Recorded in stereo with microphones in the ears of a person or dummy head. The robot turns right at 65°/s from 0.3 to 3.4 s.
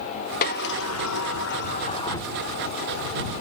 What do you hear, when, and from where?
0.4 s a sliding door: 45° left; by 2.3 s 170° left